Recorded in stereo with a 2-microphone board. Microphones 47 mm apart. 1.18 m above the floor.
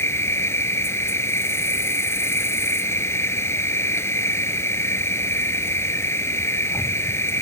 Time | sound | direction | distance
0.0 | an insect | 70° left (ahead or behind) | ?